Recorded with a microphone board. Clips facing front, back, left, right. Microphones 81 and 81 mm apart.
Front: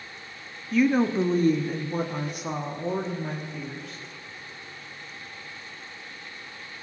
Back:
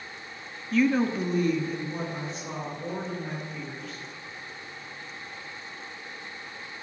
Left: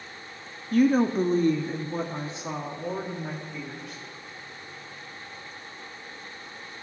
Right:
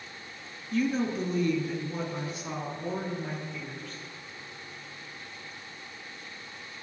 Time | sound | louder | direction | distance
0.7 | a woman speaking | front 2 dB, left 7 dB | 85° left | 0.6 m